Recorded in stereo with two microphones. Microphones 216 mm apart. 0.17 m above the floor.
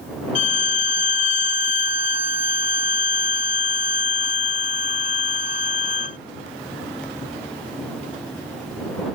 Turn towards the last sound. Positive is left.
turn(degrees=35)  # may be behind; listen again after turning